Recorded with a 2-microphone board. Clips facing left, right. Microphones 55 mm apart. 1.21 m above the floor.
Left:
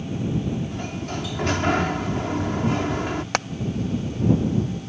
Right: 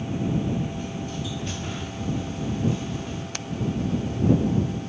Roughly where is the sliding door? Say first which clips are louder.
Left 2 dB; left.